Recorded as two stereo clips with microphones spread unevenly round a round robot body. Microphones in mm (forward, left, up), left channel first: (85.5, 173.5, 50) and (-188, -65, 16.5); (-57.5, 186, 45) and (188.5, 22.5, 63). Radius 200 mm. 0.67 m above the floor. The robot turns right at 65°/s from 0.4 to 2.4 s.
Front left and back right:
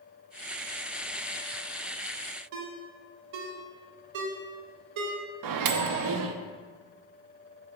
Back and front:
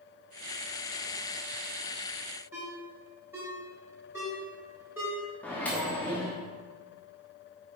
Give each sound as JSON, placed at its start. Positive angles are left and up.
{"t": 2.5, "sound": "a ringtone", "azimuth_deg": -115, "distance_m": 1.1}
{"t": 5.4, "sound": "a microwave", "azimuth_deg": -130, "distance_m": 0.6}